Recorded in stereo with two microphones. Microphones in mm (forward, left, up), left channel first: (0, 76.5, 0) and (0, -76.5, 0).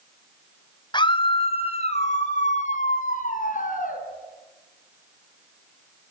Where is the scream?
30° left (ahead or behind), 1.7 m; by 4.0 s 65° left (ahead or behind), 3.5 m.